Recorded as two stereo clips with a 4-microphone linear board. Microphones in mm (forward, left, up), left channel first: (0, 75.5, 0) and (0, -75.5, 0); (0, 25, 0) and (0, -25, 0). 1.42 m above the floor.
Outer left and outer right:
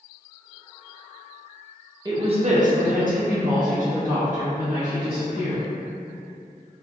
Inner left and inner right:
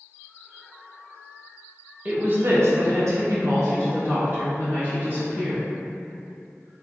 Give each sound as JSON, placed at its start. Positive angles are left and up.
{"t": 2.0, "sound": "a woman speaking", "side_deg": -30, "distance_m": 0.6}